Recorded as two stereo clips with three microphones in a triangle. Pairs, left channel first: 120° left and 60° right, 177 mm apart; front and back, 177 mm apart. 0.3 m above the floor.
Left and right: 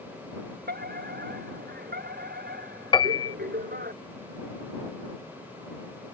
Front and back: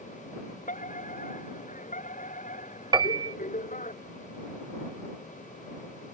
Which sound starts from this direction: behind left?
A piano, at 2.9 s.